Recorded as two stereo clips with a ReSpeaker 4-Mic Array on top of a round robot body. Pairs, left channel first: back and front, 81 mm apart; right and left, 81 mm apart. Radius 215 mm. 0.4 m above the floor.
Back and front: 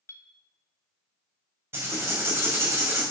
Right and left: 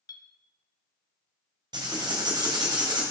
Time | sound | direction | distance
0.1 | a clink | 120° right | 0.8 m
1.7 | writing | 60° left | 2 m